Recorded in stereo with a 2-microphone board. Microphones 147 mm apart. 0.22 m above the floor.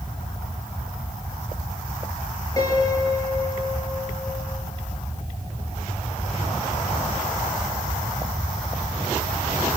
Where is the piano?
25° left (ahead or behind), 4 m.